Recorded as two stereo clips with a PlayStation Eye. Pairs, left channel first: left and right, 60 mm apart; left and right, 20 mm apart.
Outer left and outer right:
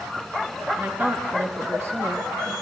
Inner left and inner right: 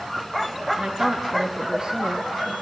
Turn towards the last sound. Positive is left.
turn(degrees=-45)  # may be behind; listen again after turning